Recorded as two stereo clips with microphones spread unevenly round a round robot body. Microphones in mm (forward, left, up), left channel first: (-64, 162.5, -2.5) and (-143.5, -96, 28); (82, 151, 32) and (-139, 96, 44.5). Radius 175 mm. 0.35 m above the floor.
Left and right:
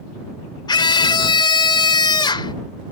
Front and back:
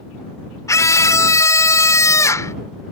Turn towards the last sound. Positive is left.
turn(degrees=60)